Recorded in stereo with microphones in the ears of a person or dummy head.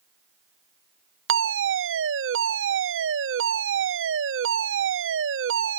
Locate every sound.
1.3 s a fire alarm: 65° right (ahead or behind)